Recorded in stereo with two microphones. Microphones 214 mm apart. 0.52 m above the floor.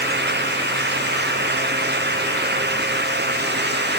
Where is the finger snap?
I don't hear a finger snap.